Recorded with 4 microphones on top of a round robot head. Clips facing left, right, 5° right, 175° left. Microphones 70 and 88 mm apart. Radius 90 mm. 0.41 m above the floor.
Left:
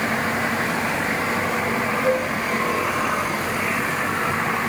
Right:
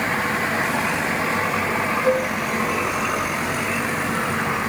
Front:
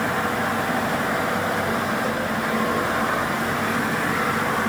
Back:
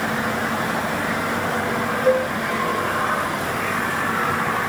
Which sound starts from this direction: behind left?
A cowbell, at 2.0 s.